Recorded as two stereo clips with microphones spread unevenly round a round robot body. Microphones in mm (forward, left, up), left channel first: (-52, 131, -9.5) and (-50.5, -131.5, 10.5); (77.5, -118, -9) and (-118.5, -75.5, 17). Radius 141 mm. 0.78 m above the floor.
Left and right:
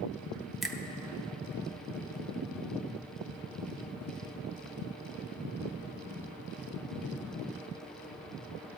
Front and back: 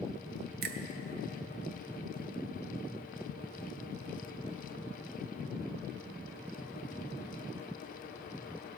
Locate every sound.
0.6 s a finger snap: 175° left, 0.7 m